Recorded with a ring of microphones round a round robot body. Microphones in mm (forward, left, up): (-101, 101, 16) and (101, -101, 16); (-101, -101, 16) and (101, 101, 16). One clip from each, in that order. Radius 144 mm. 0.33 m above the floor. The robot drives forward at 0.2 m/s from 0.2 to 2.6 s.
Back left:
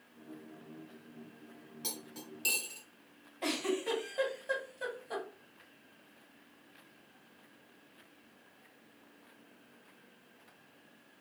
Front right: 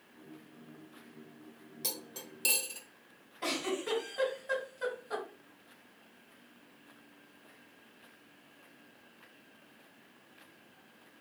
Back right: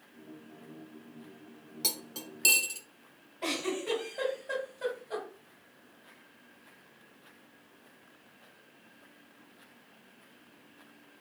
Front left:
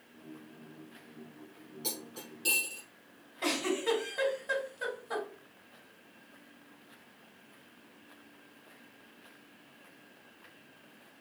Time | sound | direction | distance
1.8 | cutlery clinking | 120° right | 1.0 m
3.4 | a giggle | 80° left | 2 m